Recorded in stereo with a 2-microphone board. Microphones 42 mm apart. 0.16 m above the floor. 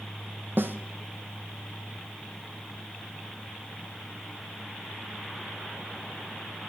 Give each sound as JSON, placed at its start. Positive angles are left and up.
{"t": 0.6, "sound": "a snare drum", "side_deg": -65, "distance_m": 1.4}